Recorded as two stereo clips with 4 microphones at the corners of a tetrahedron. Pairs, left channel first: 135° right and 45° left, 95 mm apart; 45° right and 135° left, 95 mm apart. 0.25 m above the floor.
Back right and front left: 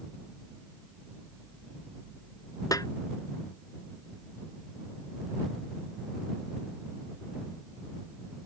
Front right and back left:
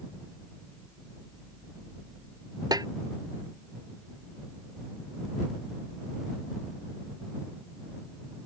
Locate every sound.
2.7 s a snare drum: 175° left